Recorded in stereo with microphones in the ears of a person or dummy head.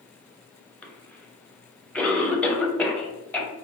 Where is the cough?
5° left (ahead or behind), 0.7 m.